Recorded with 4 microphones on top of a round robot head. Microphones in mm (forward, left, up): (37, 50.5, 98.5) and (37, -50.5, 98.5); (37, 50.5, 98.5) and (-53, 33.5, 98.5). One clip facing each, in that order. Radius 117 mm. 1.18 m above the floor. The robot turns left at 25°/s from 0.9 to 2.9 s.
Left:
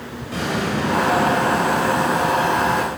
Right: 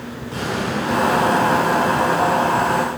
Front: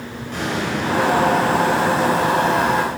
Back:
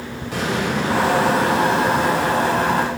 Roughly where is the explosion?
Behind right.